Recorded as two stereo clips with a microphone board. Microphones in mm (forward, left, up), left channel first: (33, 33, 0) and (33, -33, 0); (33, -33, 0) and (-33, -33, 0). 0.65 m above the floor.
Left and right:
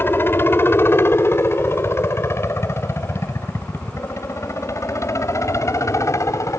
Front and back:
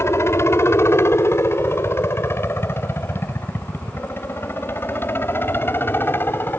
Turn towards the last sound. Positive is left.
turn(degrees=55)